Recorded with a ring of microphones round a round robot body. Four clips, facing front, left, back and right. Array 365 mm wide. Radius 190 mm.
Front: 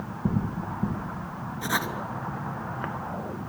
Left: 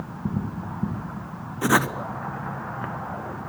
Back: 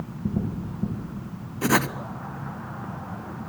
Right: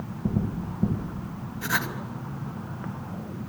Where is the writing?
130° left, 0.9 m.